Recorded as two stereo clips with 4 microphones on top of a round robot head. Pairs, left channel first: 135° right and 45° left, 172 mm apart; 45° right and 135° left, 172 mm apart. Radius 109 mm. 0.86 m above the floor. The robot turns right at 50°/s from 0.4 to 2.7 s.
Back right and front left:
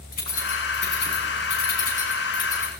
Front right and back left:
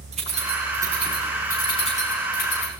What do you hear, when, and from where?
0.1 s keys jangling: 170° right, 6.5 m; by 2.8 s 55° right, 6.5 m